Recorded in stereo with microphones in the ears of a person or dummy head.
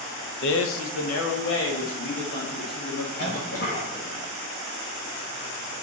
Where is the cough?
60° left (ahead or behind), 2 m.